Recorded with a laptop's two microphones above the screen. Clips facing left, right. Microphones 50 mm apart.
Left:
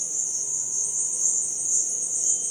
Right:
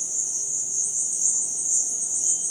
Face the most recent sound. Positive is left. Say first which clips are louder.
# even
turn(degrees=40)  # may be behind; listen again after turning